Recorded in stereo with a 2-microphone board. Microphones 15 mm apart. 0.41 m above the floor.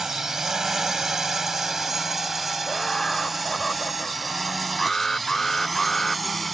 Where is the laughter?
40° left (ahead or behind).